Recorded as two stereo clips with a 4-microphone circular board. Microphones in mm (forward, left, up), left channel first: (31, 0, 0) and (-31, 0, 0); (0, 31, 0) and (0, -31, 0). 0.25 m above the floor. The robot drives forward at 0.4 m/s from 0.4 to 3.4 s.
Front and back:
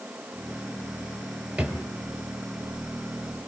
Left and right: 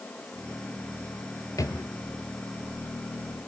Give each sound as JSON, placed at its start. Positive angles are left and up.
{"t": 1.6, "sound": "a drawer", "azimuth_deg": 115, "distance_m": 2.0}